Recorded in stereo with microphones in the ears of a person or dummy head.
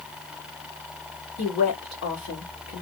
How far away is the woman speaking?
About 1.6 m.